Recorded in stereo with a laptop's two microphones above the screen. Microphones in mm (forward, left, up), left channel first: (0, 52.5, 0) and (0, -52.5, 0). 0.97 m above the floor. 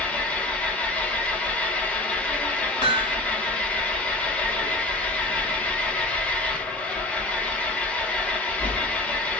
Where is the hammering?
55° left (ahead or behind), 1.2 m.